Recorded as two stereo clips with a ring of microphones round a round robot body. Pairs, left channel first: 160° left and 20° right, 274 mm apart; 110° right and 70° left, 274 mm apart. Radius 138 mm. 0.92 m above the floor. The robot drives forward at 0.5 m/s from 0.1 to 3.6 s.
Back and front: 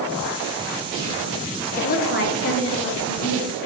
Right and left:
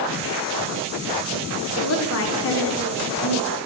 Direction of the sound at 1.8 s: 140° right.